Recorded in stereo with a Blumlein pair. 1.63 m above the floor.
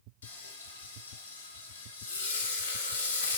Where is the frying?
65° left, 0.6 m.